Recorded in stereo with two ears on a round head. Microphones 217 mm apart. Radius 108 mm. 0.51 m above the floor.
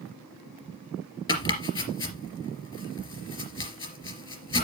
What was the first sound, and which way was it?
Chopping, 20° left (ahead or behind).